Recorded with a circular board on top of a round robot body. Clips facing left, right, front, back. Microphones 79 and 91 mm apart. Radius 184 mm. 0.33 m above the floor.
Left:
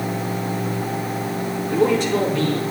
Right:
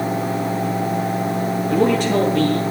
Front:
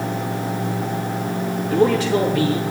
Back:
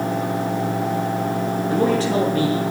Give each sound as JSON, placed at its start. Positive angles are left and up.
{"t": 1.7, "sound": "a man speaking", "azimuth_deg": -125, "distance_m": 7.5}